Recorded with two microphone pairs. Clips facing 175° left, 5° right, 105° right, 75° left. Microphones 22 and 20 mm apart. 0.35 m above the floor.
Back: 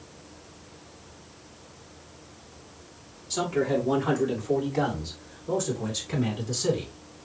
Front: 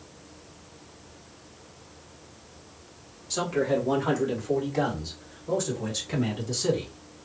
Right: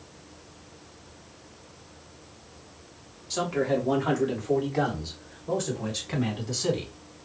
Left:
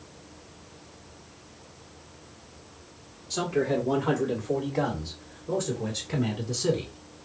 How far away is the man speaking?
About 1.3 m.